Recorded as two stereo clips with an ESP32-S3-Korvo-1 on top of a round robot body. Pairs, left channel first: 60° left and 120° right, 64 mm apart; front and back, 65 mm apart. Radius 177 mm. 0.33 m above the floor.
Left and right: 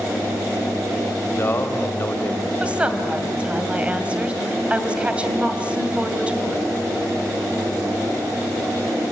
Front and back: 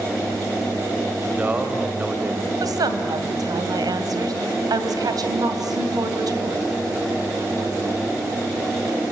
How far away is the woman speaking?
About 3 m.